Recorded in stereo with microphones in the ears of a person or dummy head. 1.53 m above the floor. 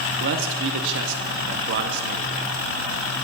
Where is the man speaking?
65° right (ahead or behind), 0.9 m.